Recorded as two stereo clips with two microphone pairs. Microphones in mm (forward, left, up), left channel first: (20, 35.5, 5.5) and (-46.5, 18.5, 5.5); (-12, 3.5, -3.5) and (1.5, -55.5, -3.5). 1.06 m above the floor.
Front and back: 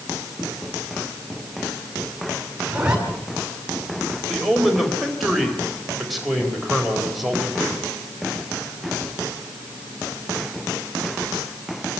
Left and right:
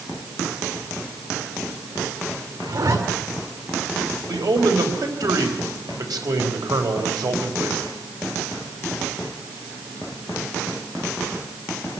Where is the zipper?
90° right, 5.5 m.